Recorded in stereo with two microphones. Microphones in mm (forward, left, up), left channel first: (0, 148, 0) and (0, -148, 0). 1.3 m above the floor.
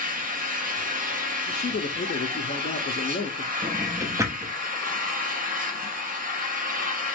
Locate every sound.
0.0 s an engine running: 30° right (ahead or behind), 0.8 m
1.5 s a man speaking: 30° left (ahead or behind), 0.6 m
3.6 s a drawer: 10° right (ahead or behind), 0.7 m